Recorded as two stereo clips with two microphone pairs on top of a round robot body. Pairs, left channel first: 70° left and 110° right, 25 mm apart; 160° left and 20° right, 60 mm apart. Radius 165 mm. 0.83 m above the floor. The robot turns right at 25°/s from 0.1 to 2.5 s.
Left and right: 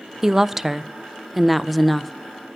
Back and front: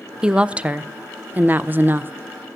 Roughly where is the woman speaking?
Right.